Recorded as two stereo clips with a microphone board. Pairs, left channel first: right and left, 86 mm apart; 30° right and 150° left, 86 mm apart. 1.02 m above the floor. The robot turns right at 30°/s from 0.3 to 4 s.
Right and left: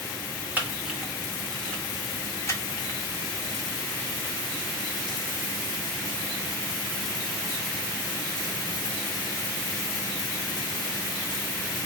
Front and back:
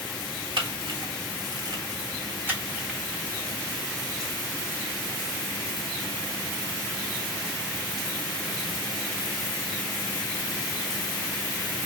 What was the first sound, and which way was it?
A camera shutter, 160° left.